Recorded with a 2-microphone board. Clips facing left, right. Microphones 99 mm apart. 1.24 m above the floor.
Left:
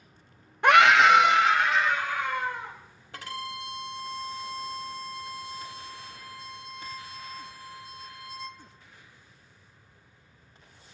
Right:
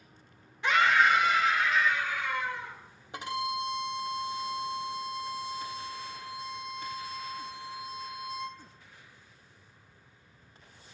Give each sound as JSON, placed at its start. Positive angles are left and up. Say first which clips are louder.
{"t": 0.6, "sound": "a scream", "louder": "left 7 dB", "side_deg": 50, "distance_m": 0.6}
{"t": 3.1, "sound": "a violin", "louder": "right 5 dB", "side_deg": -20, "distance_m": 0.8}